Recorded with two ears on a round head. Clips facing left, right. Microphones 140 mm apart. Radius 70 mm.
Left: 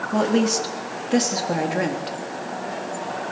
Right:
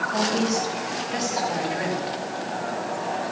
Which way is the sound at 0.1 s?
60° left (ahead or behind).